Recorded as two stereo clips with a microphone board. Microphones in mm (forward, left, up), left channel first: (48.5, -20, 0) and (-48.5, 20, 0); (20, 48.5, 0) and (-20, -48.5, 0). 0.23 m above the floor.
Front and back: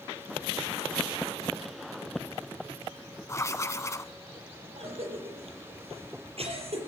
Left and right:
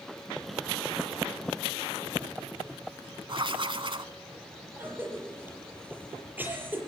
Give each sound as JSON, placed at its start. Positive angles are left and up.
{"t": 3.3, "sound": "writing", "azimuth_deg": -80, "distance_m": 0.8}
{"t": 4.8, "sound": "a cough", "azimuth_deg": 175, "distance_m": 6.5}